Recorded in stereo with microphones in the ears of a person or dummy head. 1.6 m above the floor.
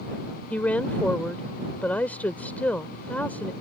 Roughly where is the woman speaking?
Centre.